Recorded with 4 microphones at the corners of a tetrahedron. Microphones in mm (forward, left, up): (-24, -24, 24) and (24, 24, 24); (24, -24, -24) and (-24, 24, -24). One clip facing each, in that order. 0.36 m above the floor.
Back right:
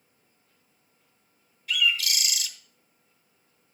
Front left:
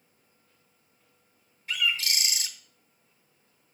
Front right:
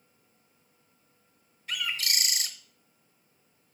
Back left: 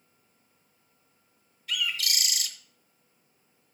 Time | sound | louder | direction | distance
1.7 | a bird | back right 3 dB, back left 1 dB | straight ahead | 0.8 m